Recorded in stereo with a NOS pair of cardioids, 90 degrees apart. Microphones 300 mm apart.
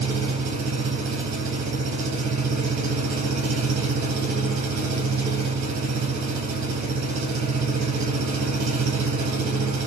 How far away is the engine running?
About 4 m.